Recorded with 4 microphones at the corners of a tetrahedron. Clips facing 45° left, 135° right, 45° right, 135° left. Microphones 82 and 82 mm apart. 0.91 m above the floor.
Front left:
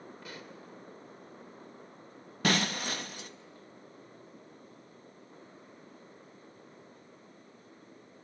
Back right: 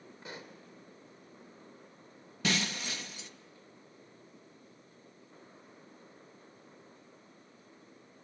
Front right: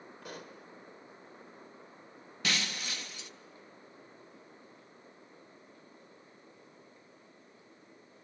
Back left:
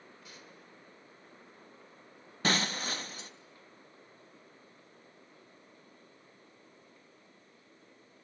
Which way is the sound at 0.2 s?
70° right.